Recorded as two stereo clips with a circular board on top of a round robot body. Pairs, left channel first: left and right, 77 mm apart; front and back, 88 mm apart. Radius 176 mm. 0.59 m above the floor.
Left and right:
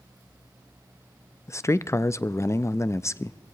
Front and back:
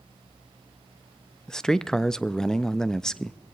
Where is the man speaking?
80° left, 0.6 m.